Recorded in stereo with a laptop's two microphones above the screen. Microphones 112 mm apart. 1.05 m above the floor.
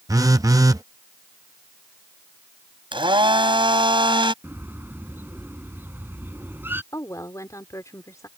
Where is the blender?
50° right (ahead or behind).